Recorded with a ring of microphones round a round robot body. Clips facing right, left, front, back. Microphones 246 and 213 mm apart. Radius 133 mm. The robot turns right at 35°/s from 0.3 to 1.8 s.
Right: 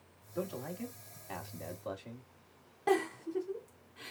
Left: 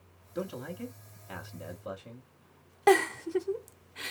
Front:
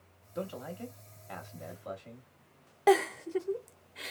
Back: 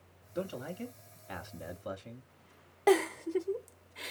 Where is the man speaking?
125° left, 0.9 m; by 2.3 s 175° left, 0.9 m.